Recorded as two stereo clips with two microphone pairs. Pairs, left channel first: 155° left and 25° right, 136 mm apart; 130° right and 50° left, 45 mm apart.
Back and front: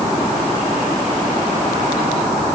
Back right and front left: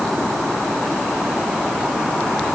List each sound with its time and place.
Only background noise.